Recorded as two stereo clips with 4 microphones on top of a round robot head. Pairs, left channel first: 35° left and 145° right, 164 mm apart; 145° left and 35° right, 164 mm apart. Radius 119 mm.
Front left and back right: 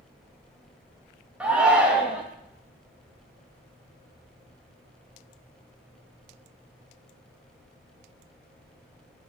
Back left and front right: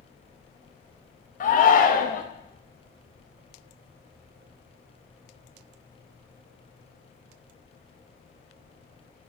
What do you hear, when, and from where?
1.4 s a shout: 135° left, 0.8 m